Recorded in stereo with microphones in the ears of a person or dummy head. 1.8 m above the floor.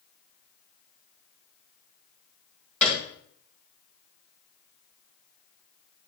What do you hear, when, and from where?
2.8 s a piano: centre (ahead or behind), 2.5 m